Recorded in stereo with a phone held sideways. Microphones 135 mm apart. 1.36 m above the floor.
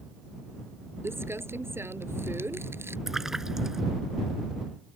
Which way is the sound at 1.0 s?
20° right (ahead or behind).